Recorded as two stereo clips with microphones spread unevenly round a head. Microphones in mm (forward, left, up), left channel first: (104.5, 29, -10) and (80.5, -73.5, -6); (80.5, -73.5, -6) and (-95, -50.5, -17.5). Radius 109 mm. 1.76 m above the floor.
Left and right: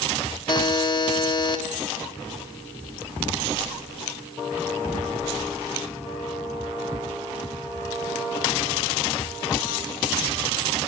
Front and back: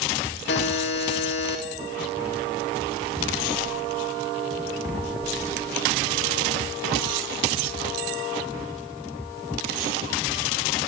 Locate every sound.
0.5 s a buzzer: 30° left, 3.5 m